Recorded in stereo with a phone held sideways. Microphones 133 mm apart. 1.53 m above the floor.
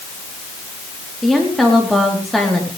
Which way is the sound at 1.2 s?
Centre (ahead or behind).